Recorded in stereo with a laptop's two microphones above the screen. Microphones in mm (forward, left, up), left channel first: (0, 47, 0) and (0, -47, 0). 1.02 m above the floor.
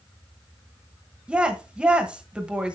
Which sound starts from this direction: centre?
A woman speaking, at 1.3 s.